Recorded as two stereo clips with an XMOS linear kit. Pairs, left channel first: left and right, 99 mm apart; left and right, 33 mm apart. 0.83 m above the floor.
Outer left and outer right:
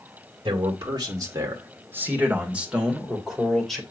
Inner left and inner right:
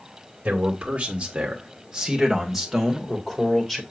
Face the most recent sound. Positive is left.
turn(degrees=5)  # may be behind; listen again after turning